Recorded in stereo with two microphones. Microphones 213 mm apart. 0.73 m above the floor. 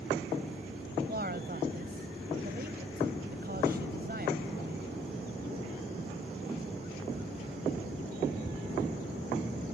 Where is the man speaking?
45° right (ahead or behind).